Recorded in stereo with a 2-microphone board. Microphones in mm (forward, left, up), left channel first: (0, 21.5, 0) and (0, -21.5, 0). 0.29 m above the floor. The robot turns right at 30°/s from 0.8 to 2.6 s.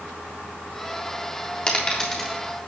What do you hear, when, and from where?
1.7 s a dropped coin: 15° left (ahead or behind), 3.5 m; by 2.4 s 5° right (ahead or behind), 3.5 m